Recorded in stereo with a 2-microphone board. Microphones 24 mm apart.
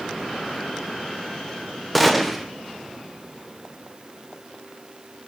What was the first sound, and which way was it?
A gunshot, centre (ahead or behind).